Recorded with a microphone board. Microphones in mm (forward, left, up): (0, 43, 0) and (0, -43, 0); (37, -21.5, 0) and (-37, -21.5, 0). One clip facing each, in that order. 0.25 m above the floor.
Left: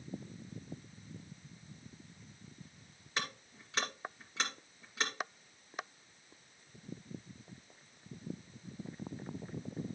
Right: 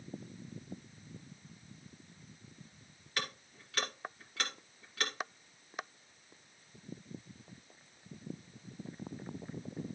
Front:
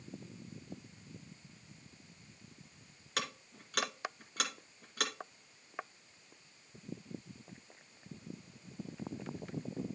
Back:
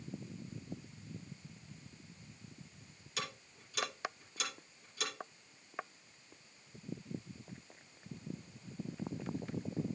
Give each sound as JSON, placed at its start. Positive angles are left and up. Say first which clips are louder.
{"t": 3.2, "sound": "ticking", "louder": "left 1 dB, front 4 dB", "azimuth_deg": 25, "distance_m": 2.0}